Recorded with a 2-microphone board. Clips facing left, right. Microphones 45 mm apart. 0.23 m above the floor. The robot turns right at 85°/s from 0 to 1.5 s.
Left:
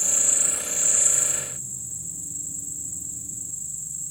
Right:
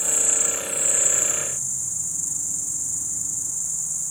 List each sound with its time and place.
0.0 s an insect: 125° left; by 4.1 s 110° right